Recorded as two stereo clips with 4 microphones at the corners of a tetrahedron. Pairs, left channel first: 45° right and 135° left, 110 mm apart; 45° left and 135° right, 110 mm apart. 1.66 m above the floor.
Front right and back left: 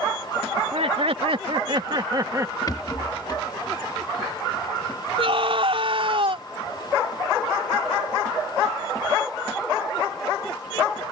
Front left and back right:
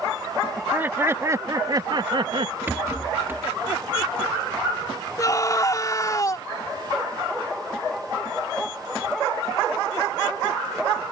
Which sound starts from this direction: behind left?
Laughter, at 0.6 s.